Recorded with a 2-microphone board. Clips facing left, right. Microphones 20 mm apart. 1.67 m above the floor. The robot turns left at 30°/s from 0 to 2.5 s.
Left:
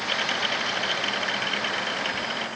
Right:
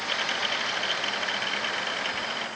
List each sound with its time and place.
Only background noise.